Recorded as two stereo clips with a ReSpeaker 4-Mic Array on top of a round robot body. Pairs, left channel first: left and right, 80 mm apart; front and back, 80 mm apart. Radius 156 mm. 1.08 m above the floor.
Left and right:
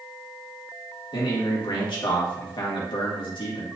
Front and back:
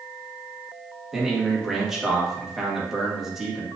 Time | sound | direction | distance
1.1 | a man speaking | 95° left | 1.8 m